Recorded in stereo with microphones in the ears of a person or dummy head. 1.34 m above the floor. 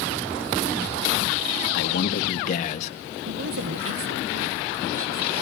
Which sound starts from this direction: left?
A man speaking, at 1.7 s.